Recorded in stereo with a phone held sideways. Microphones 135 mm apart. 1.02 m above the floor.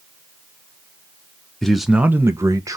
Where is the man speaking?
5° left (ahead or behind), 0.6 m; by 2.8 s 25° right (ahead or behind), 0.8 m.